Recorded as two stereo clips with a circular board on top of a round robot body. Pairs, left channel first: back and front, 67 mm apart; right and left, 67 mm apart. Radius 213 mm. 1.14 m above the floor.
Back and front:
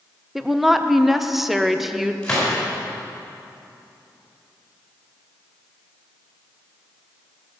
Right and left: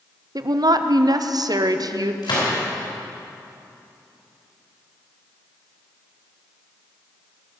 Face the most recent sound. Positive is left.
turn(degrees=-100)